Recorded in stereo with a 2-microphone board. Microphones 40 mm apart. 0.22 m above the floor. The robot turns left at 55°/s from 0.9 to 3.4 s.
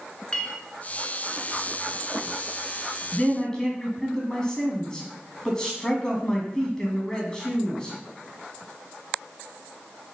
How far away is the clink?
About 2 m.